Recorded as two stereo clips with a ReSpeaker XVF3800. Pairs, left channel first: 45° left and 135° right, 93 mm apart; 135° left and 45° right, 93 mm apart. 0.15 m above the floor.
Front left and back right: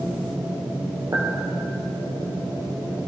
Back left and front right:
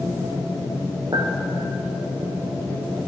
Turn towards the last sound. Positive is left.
turn(degrees=-85)